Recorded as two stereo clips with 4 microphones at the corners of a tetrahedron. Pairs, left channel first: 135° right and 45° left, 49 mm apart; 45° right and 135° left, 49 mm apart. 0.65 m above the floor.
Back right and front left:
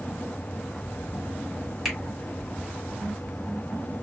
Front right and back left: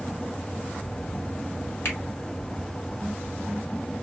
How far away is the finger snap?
About 1.6 m.